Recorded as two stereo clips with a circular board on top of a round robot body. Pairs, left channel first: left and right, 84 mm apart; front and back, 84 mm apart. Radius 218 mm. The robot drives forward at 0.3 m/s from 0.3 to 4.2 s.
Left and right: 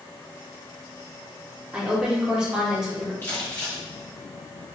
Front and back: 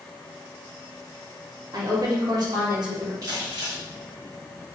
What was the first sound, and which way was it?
A woman speaking, 165° right.